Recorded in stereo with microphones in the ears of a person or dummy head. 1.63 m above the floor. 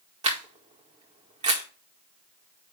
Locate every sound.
0.2 s a camera shutter: 25° right (ahead or behind), 1.8 m